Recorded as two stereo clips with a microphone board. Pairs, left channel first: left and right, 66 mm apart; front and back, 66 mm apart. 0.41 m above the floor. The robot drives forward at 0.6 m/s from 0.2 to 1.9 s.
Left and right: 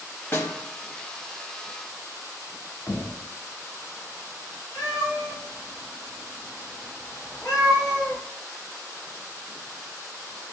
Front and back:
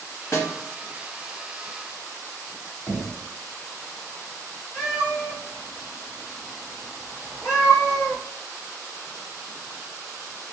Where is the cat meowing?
55° left, 2.5 m.